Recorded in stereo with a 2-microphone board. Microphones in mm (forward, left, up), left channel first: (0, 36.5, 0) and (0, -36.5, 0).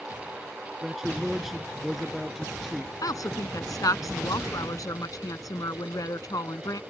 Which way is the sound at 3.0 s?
60° left (ahead or behind).